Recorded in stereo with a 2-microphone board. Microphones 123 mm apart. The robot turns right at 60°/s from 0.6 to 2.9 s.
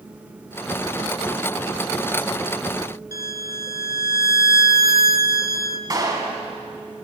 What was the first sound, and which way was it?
A violin, 30° right (ahead or behind).